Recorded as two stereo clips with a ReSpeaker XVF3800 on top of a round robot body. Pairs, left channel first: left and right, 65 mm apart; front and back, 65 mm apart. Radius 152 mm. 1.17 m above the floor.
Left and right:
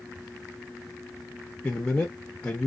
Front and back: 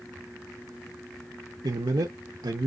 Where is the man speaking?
165° left, 0.7 m.